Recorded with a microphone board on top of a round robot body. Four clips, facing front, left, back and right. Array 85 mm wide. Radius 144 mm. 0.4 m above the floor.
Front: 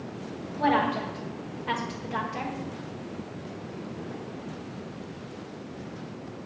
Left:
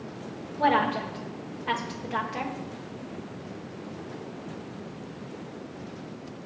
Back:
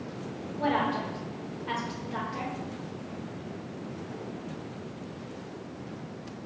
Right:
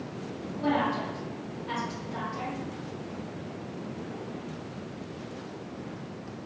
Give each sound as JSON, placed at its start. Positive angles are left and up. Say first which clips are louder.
{"t": 0.6, "sound": "a woman speaking", "louder": "left 4 dB, front 3 dB", "azimuth_deg": 75, "distance_m": 1.6}